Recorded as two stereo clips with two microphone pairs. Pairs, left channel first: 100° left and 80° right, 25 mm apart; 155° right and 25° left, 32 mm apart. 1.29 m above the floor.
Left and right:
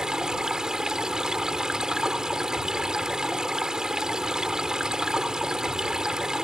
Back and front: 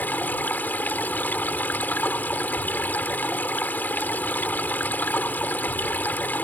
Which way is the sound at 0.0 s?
140° right.